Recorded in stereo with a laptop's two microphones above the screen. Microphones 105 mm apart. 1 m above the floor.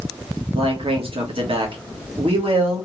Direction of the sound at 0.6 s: 60° right (ahead or behind).